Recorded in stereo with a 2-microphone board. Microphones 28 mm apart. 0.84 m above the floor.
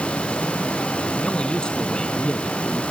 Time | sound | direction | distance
1.2 | a man speaking | 30° left (ahead or behind) | ?